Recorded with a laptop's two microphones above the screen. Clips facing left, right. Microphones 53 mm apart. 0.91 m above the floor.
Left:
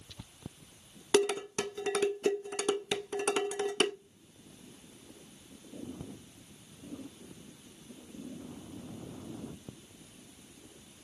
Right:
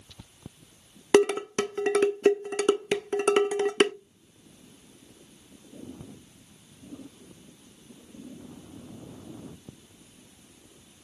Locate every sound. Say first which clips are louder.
1.1 s dishes clattering: right 7 dB; 50° right (ahead or behind), 0.5 m